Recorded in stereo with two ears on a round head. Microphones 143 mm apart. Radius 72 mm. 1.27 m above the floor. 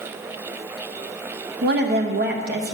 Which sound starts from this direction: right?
A woman speaking, at 1.6 s.